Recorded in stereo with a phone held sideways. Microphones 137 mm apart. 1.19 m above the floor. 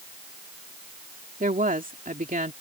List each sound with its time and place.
1.4 s a woman speaking: 75° right (ahead or behind)